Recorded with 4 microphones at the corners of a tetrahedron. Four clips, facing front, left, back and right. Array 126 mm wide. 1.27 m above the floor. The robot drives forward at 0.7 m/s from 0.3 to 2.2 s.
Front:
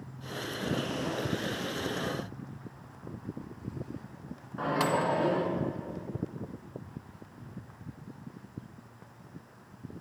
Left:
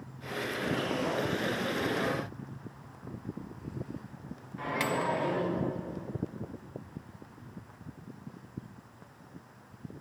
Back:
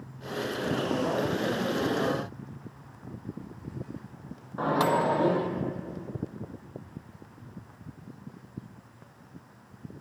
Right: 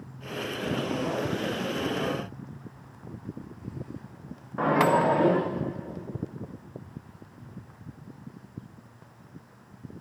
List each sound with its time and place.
4.6 s a microwave: 110° right, 0.6 m